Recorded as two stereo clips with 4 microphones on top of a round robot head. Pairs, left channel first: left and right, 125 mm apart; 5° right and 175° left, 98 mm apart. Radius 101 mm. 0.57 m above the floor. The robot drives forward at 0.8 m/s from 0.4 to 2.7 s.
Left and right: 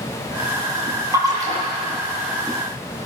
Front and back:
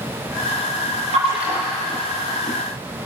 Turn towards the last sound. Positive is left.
turn(degrees=-155)